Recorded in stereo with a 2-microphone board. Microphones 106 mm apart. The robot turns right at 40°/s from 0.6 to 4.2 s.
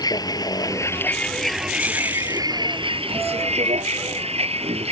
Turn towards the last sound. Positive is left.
turn(degrees=-70)